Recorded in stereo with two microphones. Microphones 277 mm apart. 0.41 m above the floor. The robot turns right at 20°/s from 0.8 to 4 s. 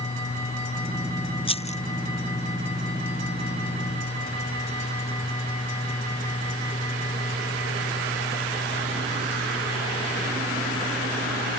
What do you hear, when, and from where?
1.5 s a rattle: 20° left (ahead or behind); by 1.8 s 25° left (ahead or behind)